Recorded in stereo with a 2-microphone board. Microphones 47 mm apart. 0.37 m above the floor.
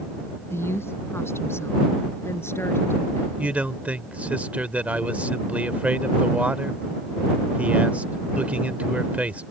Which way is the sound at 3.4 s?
30° right (ahead or behind).